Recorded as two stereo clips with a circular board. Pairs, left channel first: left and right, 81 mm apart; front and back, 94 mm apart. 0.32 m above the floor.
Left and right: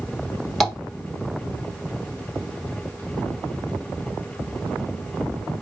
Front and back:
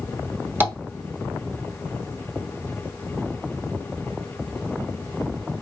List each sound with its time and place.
0.6 s tapping: 175° right, 1.4 m